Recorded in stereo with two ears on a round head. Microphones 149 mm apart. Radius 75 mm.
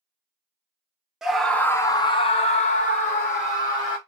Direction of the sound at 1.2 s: 5° right (ahead or behind).